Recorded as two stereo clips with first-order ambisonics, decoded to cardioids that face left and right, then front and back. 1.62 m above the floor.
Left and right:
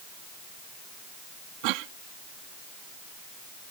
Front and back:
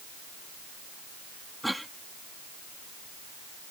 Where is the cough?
90° right.